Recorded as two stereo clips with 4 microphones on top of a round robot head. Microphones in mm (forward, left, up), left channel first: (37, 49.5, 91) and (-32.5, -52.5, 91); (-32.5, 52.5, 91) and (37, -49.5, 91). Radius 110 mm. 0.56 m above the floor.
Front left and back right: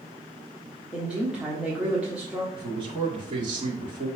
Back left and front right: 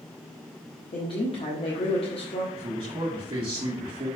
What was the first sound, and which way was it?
A woman speaking, 155° left.